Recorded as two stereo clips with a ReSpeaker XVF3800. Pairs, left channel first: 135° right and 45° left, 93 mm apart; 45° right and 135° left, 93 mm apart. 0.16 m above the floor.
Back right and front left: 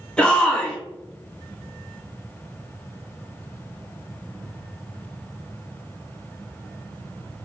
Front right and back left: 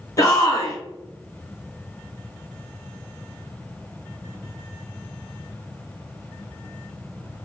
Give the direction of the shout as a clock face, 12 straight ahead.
2 o'clock.